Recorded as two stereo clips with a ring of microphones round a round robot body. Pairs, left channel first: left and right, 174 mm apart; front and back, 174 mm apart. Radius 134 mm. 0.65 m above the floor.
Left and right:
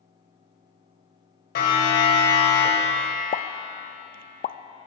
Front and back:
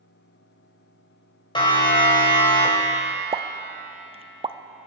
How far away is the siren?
About 4.5 m.